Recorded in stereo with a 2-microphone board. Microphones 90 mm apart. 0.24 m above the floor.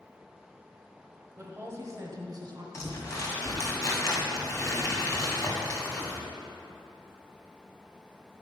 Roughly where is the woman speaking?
Centre.